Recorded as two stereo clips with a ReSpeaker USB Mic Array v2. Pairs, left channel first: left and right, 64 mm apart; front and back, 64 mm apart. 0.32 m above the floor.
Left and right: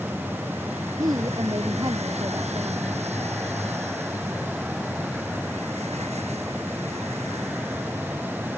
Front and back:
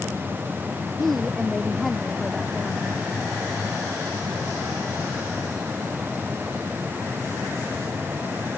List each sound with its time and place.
1.0 s a woman speaking: 85° right